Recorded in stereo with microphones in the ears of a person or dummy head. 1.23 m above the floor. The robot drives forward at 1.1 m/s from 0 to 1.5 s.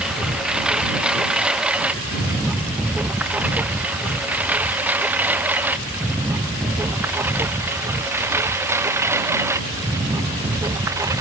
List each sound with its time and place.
0.0 s a lawn mower: centre (ahead or behind); by 11.2 s 10° right (ahead or behind)